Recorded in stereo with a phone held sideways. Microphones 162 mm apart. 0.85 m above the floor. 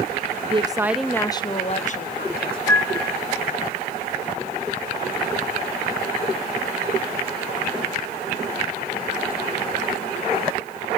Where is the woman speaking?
35° right (ahead or behind), 0.7 m; by 2.6 s 60° left (ahead or behind), 1.5 m.